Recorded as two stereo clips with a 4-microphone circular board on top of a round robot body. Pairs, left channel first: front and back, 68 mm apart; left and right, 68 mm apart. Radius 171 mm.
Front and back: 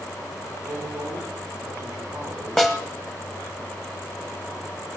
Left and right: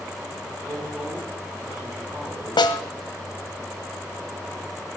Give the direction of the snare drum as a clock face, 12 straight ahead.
9 o'clock.